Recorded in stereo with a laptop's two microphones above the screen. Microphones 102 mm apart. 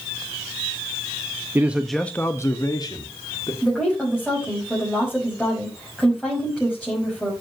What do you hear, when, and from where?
1.6 s a man speaking: 25° right (ahead or behind), 0.7 m; by 3.5 s 50° left (ahead or behind), 1.9 m
3.6 s a woman speaking: 5° left (ahead or behind), 6 m